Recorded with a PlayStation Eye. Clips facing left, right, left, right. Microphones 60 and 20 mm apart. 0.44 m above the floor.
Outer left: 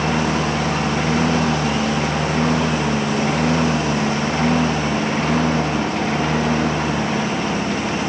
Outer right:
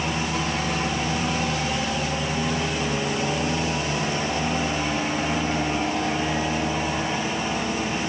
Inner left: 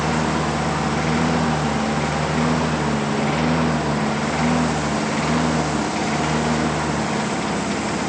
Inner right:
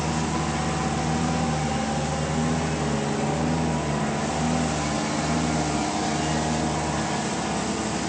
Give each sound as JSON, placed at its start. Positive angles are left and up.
{"t": 0.0, "sound": "a lawn mower", "side_deg": 65}